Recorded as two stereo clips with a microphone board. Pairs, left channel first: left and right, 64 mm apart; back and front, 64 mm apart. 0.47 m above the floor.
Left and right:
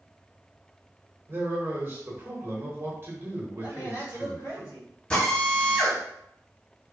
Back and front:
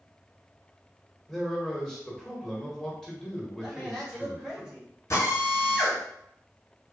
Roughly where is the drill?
Behind.